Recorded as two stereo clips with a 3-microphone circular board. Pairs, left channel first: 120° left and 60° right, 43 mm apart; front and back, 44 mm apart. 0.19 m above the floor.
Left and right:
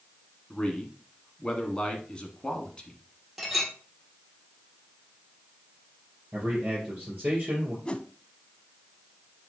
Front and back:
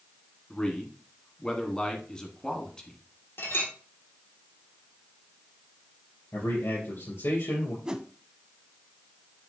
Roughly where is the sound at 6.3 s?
Ahead.